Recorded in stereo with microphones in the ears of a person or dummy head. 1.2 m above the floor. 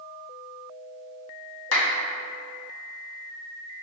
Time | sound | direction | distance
1.7 | a clap | 80° left | 2 m